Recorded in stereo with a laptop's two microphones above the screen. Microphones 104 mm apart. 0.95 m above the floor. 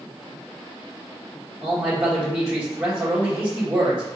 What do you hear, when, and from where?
1.6 s a man speaking: 10° right (ahead or behind), 1.2 m